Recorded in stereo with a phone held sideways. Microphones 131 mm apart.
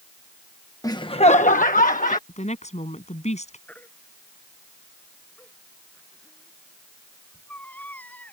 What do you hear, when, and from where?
0.8 s laughter: 25° left (ahead or behind); by 2.2 s 70° left (ahead or behind)
2.3 s a woman speaking: 60° left (ahead or behind)
3.7 s a baby crying: 10° left (ahead or behind)